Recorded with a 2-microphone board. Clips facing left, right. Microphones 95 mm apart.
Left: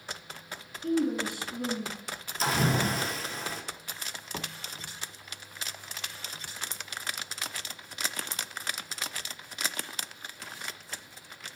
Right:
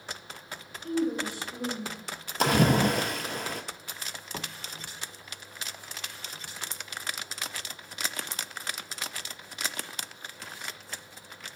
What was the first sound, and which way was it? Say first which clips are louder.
A woman speaking: left 1 dB; 60° left (ahead or behind).